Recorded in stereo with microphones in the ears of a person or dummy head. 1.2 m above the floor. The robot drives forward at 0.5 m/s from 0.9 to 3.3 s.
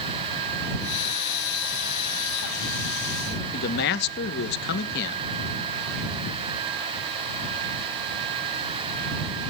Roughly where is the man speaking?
Left.